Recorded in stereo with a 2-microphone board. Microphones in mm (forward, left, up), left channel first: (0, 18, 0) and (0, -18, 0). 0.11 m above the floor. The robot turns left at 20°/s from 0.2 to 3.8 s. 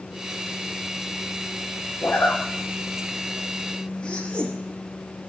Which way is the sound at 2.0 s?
70° left (ahead or behind).